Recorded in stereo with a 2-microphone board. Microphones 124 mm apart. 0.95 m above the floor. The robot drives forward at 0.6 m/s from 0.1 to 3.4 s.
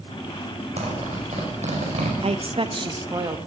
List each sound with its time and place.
0.8 s a zipper: 65° right (ahead or behind), 5.5 m; by 2.1 s 70° right (ahead or behind), 5 m
2.2 s a woman speaking: 55° right (ahead or behind), 0.7 m; by 3.4 s 30° right (ahead or behind), 1.1 m